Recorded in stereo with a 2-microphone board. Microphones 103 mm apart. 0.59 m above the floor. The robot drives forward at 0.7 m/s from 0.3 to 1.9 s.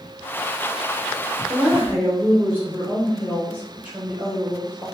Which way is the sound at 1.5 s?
20° right (ahead or behind).